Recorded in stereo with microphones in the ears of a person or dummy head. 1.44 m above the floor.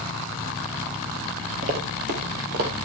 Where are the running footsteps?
40° right (ahead or behind), 2.0 m; by 2.7 s 50° right (ahead or behind), 3 m.